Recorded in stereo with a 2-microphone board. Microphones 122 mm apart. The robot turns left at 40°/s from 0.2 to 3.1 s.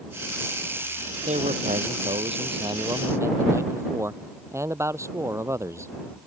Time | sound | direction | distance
1.3 | a man speaking | 85° right | ?